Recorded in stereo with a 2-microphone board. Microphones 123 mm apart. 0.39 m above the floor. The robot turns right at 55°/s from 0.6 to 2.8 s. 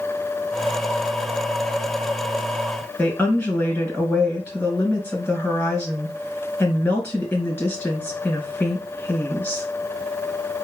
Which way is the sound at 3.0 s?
10° left (ahead or behind).